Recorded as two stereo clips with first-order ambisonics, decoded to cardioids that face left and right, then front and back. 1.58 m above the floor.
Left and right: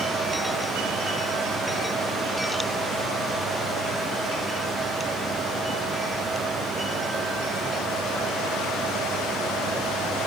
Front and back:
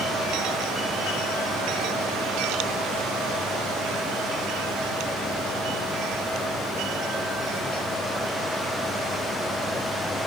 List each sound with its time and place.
Only background noise.